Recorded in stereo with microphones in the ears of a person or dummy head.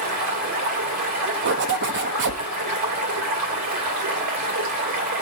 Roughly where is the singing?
I don't hear singing.